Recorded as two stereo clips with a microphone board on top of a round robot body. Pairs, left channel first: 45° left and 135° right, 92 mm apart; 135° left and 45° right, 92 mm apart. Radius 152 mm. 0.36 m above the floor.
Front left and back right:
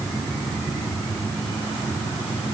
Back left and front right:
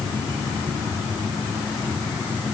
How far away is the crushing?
No crushing in this recording.